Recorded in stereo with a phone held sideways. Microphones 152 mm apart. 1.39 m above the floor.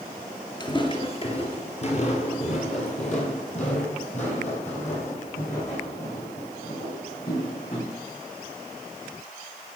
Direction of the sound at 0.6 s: 30° left (ahead or behind).